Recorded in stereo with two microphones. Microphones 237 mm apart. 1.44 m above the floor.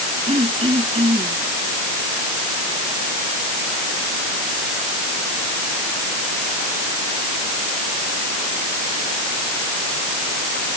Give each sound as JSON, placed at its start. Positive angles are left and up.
{"t": 0.3, "sound": "throat clearing", "side_deg": -25}